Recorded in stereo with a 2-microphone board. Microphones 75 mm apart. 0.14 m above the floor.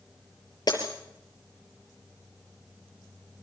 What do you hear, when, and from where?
0.7 s breaking glass: 60° left (ahead or behind), 6 m